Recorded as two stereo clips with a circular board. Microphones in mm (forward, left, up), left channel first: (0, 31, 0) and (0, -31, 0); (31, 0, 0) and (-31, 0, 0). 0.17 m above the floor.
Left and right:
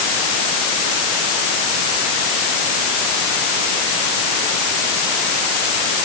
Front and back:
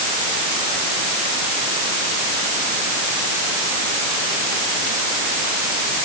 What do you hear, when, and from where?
Only background noise.